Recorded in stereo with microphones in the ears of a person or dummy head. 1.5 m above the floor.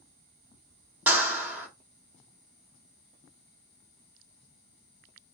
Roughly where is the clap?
Centre.